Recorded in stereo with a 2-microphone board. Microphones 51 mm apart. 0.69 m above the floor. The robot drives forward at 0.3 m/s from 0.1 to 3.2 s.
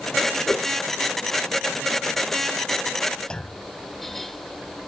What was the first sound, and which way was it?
A whoosh, 35° left (ahead or behind).